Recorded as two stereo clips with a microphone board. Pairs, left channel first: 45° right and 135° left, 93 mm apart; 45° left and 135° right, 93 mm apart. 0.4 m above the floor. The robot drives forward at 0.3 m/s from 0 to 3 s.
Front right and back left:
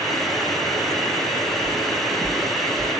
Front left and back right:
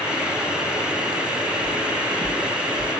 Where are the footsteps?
170° left, 0.9 m; by 2.9 s 165° right, 1.9 m.